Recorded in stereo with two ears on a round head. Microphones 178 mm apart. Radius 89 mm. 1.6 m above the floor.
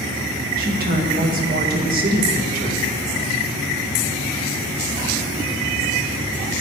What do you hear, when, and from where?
0.6 s a woman speaking: 45° right (ahead or behind), 1.9 m